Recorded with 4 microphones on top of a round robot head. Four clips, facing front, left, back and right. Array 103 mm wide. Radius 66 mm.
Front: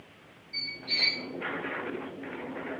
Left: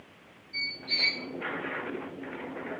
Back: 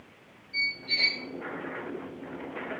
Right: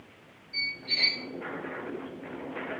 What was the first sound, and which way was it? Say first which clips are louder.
A squeak: right 1 dB, back 5 dB; 5° right.